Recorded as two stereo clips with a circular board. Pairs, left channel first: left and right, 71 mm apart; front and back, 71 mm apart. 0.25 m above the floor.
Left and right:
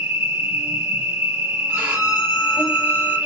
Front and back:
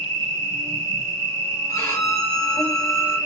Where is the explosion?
No explosion in this recording.